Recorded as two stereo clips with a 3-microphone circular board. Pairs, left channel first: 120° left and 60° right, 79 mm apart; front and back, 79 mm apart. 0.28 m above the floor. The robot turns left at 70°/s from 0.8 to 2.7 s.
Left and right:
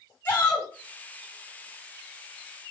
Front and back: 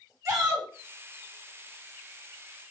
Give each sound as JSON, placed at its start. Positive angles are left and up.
{"t": 0.2, "sound": "a shout", "azimuth_deg": 175, "distance_m": 2.0}